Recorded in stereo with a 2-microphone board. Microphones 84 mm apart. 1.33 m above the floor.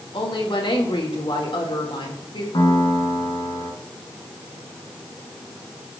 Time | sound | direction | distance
0.1 | a woman speaking | 90° left | 4 m
2.5 | a piano | 75° left (ahead or behind) | 4.5 m